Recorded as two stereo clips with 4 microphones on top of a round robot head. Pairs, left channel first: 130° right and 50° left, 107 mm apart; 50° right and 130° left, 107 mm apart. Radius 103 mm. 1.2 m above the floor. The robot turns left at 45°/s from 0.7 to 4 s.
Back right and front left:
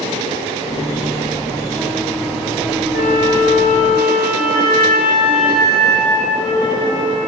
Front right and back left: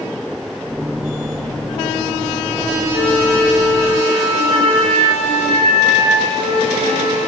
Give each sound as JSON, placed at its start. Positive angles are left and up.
{"t": 2.9, "sound": "a flute", "azimuth_deg": -125, "distance_m": 1.7}